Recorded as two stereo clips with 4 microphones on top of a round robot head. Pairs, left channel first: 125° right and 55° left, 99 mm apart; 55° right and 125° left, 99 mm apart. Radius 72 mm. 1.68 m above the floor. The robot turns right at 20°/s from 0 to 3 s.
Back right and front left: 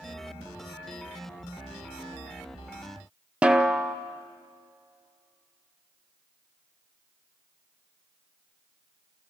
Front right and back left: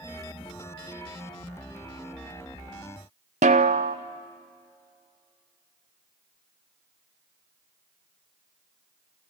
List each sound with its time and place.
3.4 s a snare drum: 135° left, 0.7 m